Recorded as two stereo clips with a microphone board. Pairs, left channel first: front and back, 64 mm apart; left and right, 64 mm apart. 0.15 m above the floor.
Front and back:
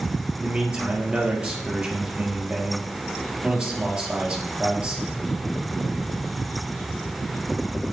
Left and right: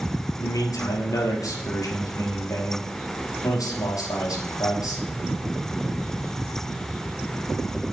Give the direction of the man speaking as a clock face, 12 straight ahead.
8 o'clock.